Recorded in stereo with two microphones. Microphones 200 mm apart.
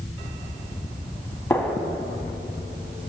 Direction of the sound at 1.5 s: 10° left (ahead or behind).